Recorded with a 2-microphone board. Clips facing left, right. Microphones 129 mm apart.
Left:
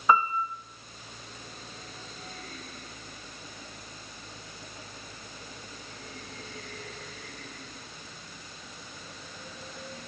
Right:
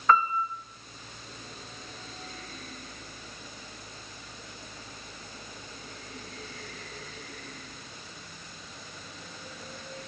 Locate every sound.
0.1 s a piano: 15° left (ahead or behind), 0.8 m